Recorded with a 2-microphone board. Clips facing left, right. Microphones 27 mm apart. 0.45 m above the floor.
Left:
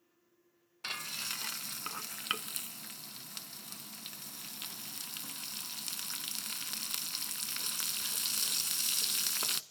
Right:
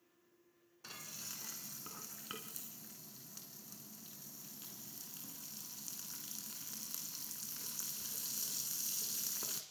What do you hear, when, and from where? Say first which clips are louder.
0.8 s frying: left 11 dB; 80° left, 0.9 m